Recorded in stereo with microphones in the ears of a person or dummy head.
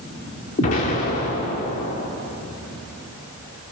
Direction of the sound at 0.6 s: 40° left (ahead or behind).